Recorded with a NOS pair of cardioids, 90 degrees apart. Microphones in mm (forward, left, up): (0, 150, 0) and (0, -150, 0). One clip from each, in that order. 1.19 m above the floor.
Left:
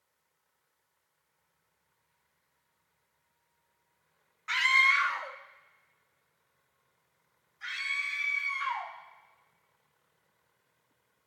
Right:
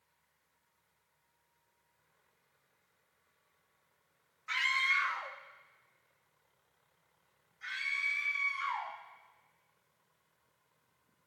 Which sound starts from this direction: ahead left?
A scream, at 4.5 s.